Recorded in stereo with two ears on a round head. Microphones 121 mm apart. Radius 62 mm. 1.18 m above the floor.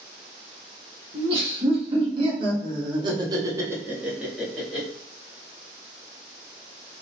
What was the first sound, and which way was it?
Laughter, 35° right (ahead or behind).